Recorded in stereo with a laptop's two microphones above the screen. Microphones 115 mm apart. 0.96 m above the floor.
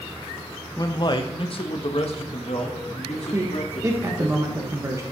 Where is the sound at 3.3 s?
25° right (ahead or behind), 1.0 m.